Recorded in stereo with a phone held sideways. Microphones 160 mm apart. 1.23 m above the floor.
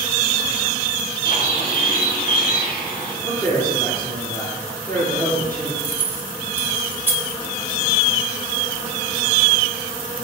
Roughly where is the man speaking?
Centre.